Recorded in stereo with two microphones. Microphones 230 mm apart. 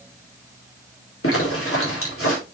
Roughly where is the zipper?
Left.